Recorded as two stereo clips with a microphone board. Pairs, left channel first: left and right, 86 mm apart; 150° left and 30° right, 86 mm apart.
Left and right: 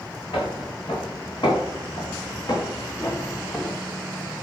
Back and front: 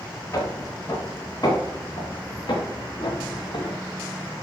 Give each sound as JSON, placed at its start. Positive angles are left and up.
{"t": 0.3, "sound": "footsteps", "azimuth_deg": 105, "distance_m": 4.0}